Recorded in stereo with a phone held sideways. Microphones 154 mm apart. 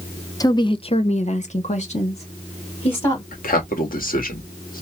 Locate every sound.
0.4 s a woman speaking: 25° left (ahead or behind), 0.7 m; by 3.2 s 40° left (ahead or behind), 1.7 m
3.3 s a man speaking: 70° left (ahead or behind), 1.5 m